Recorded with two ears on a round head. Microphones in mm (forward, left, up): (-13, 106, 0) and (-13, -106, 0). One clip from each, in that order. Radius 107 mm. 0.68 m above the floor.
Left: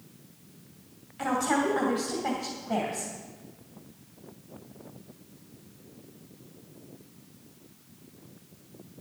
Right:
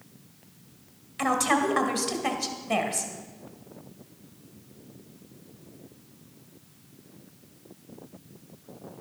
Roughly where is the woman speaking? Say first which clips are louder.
Right 3 dB; right.